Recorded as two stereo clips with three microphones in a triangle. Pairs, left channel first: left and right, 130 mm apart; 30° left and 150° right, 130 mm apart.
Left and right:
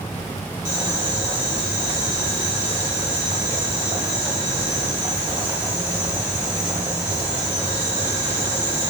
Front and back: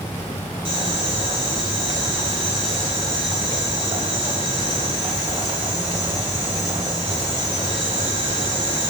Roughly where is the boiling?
Behind right.